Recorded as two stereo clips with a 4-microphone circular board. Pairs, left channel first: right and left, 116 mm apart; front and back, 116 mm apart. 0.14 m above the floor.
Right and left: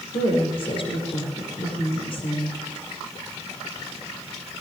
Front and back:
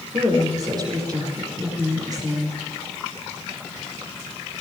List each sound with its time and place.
0.1 s a woman speaking: 125° right, 5.5 m